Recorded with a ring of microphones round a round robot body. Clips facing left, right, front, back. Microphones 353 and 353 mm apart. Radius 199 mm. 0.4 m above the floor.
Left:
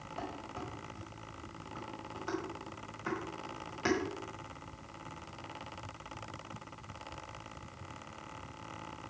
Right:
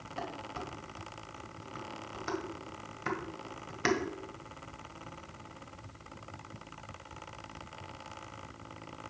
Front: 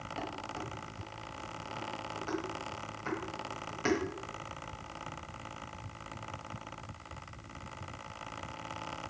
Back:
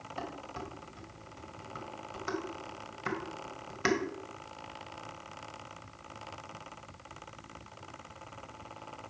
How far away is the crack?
No crack in this recording.